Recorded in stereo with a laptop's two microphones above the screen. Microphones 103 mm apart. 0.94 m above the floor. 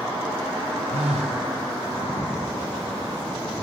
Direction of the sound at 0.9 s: 80° right.